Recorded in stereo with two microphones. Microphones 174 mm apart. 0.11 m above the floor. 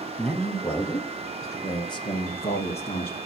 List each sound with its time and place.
0.2 s a man speaking: centre (ahead or behind), 3 m; by 3.2 s 45° left (ahead or behind), 2 m